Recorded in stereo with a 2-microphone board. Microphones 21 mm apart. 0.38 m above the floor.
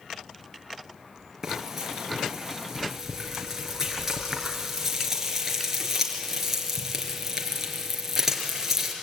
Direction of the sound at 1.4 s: 15° right (ahead or behind).